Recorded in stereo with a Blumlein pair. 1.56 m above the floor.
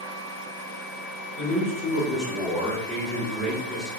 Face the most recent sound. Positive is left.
turn(degrees=-25)